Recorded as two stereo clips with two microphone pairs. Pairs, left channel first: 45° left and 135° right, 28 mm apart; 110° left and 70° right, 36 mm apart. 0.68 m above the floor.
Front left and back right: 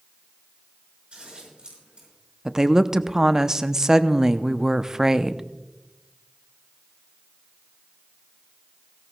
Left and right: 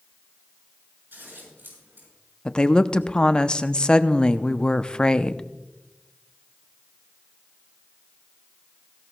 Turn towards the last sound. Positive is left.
turn(degrees=165)